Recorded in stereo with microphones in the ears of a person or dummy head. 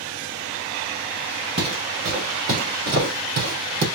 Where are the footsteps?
40° right (ahead or behind), 3 m; by 3.9 s 65° right (ahead or behind), 3.5 m.